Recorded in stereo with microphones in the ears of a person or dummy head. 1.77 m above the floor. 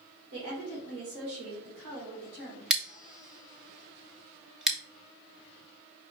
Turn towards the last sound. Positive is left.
turn(degrees=-5)  # may be behind; listen again after turning